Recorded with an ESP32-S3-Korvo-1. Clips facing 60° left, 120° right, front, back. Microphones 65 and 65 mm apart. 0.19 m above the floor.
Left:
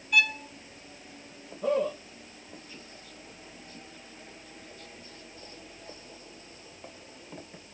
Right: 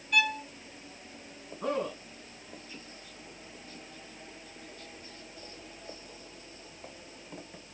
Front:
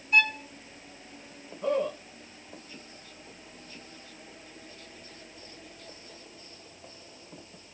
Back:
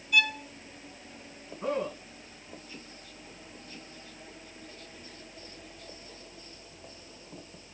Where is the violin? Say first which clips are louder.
Left 2 dB, front 2 dB; 30° right, 2.0 m.